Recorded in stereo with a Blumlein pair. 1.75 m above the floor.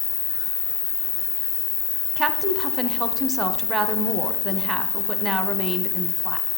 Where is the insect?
55° left, 1.6 m.